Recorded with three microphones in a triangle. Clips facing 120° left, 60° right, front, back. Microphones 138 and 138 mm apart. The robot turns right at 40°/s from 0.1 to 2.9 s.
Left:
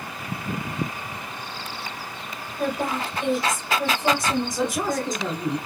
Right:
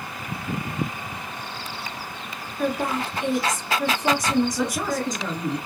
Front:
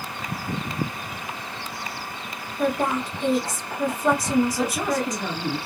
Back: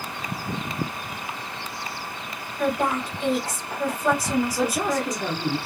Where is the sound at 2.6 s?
70° left, 1.4 m; by 5.2 s 80° left, 1.4 m.